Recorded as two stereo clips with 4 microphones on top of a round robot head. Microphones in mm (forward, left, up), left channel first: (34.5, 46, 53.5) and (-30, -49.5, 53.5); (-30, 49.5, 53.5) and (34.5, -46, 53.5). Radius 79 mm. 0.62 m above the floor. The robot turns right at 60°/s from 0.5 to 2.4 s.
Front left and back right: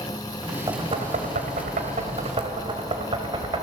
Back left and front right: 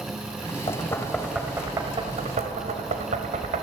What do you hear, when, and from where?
0.7 s knocking: straight behind, 2.5 m; by 3.6 s 80° right, 2.5 m